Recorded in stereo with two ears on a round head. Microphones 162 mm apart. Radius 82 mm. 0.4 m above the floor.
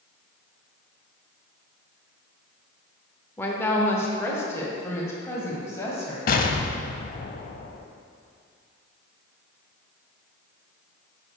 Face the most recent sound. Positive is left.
turn(degrees=50)  # may be behind; listen again after turning